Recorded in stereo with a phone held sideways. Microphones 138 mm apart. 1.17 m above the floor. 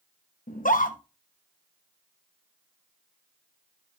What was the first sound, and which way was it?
A scream, 75° left (ahead or behind).